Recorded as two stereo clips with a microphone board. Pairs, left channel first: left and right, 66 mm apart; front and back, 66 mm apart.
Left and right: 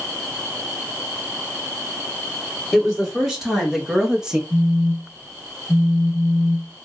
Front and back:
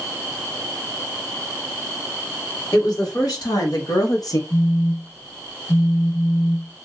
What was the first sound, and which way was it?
A woman speaking, 5° right.